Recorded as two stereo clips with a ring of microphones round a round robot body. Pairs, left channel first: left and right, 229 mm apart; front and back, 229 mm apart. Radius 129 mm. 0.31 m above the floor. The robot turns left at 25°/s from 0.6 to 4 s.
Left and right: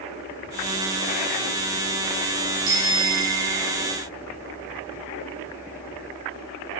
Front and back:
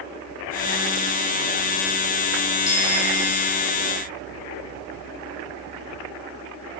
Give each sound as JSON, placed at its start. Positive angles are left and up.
{"t": 2.7, "sound": "a bicycle bell", "azimuth_deg": -45, "distance_m": 8.0}